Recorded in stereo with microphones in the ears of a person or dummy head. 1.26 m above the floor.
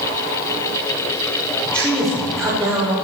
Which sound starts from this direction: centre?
A man speaking, at 1.6 s.